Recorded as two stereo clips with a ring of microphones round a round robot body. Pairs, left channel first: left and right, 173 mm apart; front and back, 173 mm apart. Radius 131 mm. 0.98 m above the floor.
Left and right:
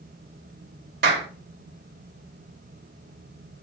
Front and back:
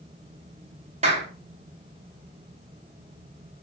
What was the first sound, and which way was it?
A clap, 120° right.